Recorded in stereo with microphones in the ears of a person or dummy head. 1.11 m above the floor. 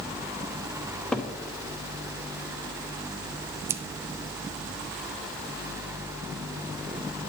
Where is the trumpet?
I don't hear a trumpet.